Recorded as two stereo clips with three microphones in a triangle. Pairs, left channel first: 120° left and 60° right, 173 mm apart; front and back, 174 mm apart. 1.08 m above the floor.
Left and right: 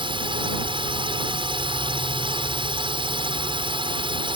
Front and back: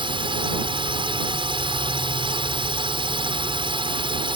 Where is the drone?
120° right.